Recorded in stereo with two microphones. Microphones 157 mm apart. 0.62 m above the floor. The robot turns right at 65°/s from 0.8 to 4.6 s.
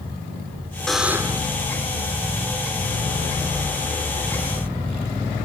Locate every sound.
0.9 s a buzzer: 175° left; by 1.5 s 145° right